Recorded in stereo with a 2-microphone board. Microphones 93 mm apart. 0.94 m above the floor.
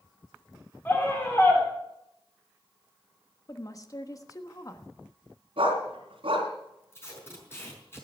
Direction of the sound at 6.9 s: 30° left (ahead or behind).